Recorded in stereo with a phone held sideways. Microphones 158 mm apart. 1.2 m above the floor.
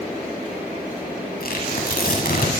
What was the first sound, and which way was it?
Tearing paper, 70° left (ahead or behind).